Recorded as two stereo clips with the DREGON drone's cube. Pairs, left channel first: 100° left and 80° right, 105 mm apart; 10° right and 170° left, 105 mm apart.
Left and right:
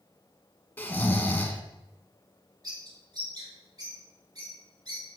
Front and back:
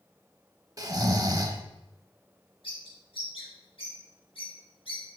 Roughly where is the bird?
Ahead right.